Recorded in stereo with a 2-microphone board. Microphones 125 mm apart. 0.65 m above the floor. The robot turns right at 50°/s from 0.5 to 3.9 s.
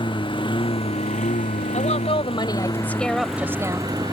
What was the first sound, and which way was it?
A lawn mower, 40° left.